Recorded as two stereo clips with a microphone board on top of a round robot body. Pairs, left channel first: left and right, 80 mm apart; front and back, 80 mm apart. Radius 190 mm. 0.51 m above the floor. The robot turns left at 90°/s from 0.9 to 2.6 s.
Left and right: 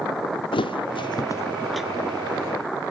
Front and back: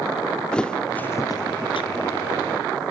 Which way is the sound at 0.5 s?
80° left.